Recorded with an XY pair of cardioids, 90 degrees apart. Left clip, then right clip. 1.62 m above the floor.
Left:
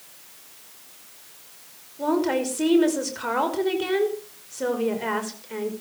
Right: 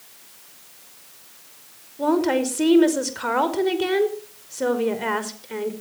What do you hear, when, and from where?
2.0 s a woman speaking: 25° right, 5 m